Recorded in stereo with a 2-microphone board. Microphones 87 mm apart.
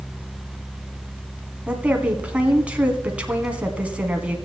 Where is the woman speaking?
15° right (ahead or behind), 1.7 m.